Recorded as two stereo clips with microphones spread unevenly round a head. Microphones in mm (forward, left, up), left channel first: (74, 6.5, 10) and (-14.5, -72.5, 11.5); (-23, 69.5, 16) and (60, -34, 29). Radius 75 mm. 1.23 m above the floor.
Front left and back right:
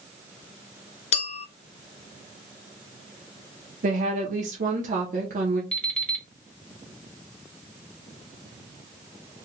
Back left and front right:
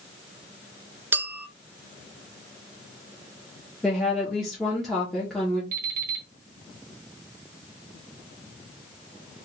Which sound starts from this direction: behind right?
A woman speaking, at 3.8 s.